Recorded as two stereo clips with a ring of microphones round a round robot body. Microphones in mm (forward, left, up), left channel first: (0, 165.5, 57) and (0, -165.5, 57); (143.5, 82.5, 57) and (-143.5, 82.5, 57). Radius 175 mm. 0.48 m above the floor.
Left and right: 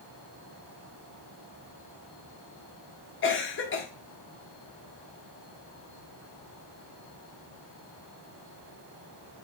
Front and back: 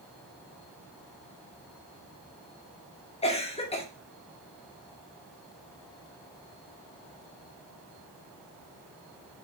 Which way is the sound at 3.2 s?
60° left.